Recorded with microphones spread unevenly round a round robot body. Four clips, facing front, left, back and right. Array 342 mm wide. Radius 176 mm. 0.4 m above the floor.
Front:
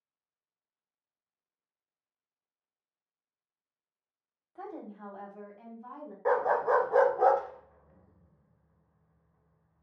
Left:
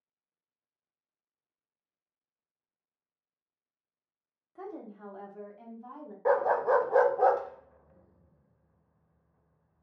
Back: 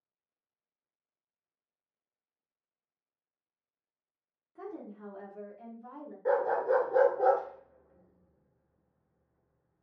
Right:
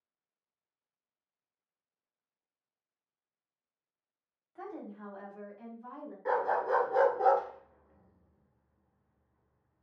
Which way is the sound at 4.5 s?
50° left.